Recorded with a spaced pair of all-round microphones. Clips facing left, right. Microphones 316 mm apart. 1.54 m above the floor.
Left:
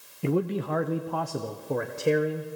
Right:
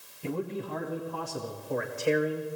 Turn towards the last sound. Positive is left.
turn(degrees=40)  # may be behind; listen again after turning